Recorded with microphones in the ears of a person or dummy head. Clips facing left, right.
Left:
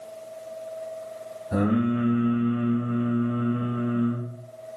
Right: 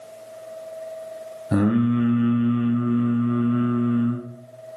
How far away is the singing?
About 1.4 m.